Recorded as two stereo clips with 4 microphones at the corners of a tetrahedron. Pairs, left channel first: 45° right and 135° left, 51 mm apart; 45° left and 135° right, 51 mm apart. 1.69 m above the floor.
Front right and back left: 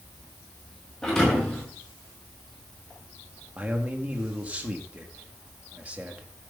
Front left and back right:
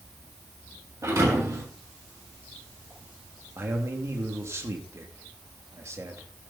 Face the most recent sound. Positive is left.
turn(degrees=-160)